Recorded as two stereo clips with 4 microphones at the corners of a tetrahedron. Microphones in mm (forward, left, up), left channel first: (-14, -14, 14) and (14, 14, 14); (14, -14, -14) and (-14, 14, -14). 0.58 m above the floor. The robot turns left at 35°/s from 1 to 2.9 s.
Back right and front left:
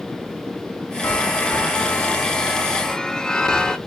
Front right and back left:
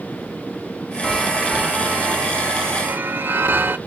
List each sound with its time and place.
1.0 s a chime: 145° right, 0.7 m; by 3.8 s 150° left, 0.7 m